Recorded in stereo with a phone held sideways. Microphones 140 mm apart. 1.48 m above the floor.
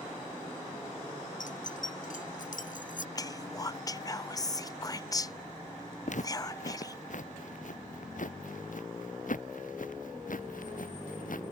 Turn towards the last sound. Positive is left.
turn(degrees=75)  # may be behind; listen again after turning